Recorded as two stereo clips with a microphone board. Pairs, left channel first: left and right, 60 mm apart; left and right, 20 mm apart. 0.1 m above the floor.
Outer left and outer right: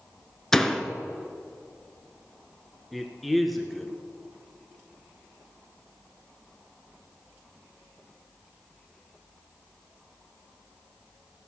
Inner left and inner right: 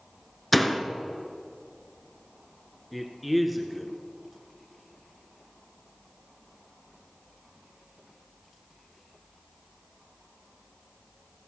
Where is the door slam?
5° left (ahead or behind), 0.8 m.